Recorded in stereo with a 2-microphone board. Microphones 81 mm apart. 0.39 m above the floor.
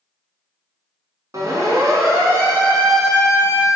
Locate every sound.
1.3 s a siren: 45° right (ahead or behind), 5 m; by 3.7 s 20° right (ahead or behind), 6 m